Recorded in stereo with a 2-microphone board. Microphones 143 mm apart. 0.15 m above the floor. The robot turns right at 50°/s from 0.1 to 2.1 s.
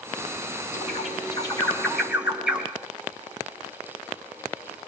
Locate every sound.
0.7 s a bird: 60° left (ahead or behind), 3.5 m; by 2.7 s 5° right (ahead or behind), 3.5 m